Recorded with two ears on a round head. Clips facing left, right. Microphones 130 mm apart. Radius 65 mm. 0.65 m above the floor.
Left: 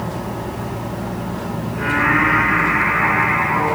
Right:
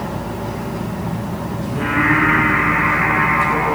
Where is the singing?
80° right, 4.5 m.